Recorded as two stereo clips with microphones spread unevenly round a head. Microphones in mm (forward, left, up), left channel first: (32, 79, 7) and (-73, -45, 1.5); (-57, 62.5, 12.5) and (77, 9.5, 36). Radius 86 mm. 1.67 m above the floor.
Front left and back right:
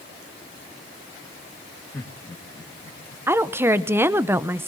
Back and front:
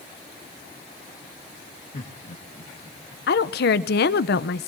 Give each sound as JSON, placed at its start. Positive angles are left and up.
{"t": 1.9, "sound": "laughter", "azimuth_deg": 120, "distance_m": 2.5}
{"t": 3.3, "sound": "a woman speaking", "azimuth_deg": 155, "distance_m": 0.9}